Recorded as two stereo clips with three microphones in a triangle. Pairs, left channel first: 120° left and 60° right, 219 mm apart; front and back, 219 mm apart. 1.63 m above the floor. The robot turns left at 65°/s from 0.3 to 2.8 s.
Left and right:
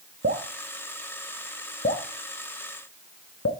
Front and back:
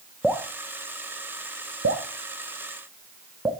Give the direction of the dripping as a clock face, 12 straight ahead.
3 o'clock.